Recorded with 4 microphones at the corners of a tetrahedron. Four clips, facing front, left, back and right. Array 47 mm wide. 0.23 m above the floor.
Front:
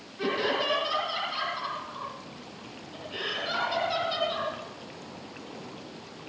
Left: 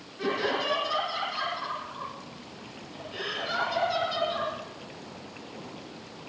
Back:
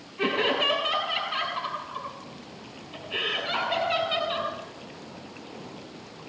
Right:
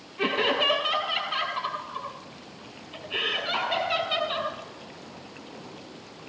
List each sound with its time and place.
0.2 s laughter: 125° right, 6.5 m